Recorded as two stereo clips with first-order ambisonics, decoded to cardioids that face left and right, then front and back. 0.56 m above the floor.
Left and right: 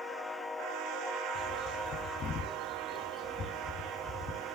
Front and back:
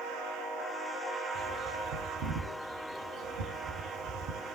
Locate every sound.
1.4 s a bird: 150° left, 0.9 m